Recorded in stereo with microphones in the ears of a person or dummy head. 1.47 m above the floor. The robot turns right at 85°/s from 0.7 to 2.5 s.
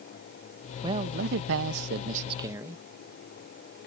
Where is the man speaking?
160° right; by 2.8 s 20° right.